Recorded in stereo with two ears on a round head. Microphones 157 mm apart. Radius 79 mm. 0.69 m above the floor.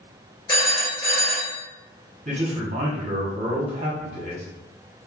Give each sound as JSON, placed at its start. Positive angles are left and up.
{"t": 0.5, "sound": "a phone ringing", "side_deg": 25, "distance_m": 1.3}
{"t": 2.2, "sound": "a man speaking", "side_deg": -40, "distance_m": 1.0}